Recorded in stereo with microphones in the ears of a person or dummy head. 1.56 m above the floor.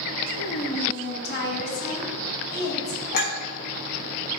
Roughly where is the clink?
Left.